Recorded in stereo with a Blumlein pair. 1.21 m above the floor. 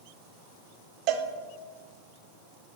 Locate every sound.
1.1 s a cowbell: 40° right, 0.7 m